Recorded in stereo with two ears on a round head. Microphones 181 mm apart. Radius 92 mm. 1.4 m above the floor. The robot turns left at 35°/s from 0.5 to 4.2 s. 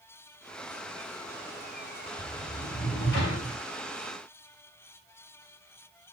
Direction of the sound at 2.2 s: 125° left.